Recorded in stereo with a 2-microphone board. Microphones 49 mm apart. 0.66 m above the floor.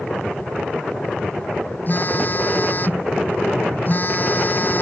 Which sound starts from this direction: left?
A phone buzzing, at 1.9 s.